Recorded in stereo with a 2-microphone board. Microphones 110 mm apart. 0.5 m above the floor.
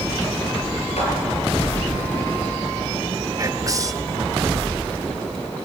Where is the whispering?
30° right (ahead or behind), 1.2 m.